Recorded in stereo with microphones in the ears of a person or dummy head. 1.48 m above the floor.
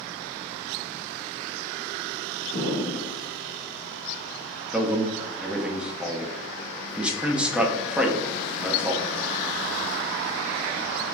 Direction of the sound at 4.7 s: 10° right (ahead or behind).